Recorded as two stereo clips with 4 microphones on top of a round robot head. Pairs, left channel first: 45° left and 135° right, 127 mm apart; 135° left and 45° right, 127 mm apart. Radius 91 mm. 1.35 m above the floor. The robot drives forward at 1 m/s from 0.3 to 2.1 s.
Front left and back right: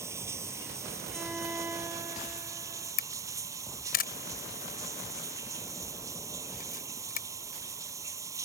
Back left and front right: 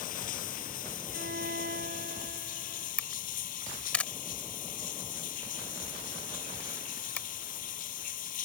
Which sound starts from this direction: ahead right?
A violin, at 1.1 s.